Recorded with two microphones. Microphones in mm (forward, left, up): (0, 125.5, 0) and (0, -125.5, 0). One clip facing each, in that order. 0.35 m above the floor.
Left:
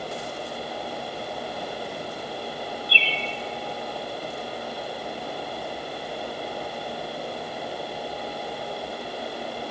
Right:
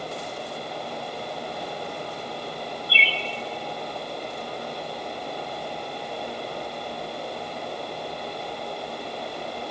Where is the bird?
65° left (ahead or behind), 1.6 m.